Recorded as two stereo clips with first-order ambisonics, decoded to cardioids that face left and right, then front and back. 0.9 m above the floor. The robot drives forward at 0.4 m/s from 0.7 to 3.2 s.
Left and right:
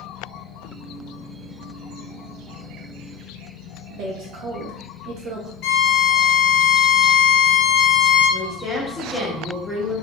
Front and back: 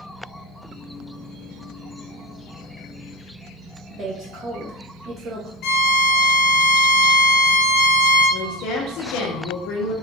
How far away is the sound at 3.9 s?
About 0.7 m.